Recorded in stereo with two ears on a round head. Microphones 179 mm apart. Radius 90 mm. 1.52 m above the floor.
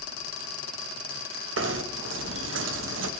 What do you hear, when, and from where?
1.6 s knocking: 75° right (ahead or behind), 1.5 m